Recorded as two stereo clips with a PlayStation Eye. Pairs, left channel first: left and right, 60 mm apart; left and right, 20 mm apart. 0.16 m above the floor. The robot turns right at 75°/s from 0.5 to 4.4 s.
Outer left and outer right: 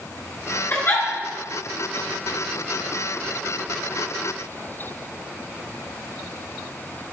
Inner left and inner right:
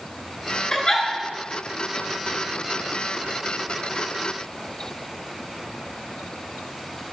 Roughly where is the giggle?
Left.